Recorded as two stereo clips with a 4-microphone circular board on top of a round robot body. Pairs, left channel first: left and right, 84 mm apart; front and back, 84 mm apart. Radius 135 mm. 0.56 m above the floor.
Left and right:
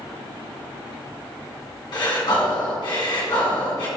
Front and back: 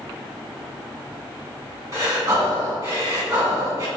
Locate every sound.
1.9 s breathing: 125° left, 1.8 m